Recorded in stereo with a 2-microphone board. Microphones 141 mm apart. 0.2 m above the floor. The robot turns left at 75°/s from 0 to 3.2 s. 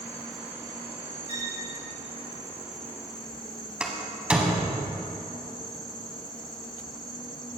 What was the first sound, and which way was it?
An insect, 25° left.